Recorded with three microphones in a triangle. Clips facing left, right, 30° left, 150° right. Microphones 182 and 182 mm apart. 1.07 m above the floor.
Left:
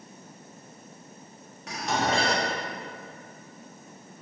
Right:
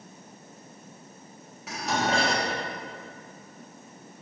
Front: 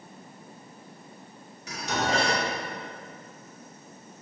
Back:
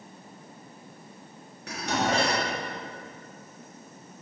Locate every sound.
1.7 s dishes clattering: straight behind, 1.4 m